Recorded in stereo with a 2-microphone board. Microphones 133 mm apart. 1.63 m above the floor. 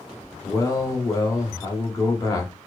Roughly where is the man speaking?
Left.